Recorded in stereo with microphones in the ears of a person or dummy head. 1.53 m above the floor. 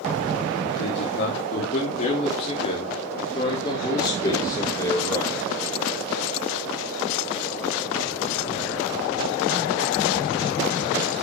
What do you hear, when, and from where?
0.8 s a man speaking: 60° left (ahead or behind), 2.5 m; by 5.4 s 15° left (ahead or behind), 4 m